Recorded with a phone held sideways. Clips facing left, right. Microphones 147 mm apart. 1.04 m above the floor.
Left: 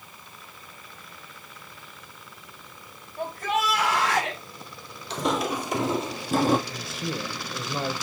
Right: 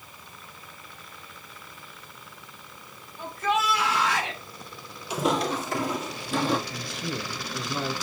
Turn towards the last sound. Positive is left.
turn(degrees=20)  # may be behind; listen again after turning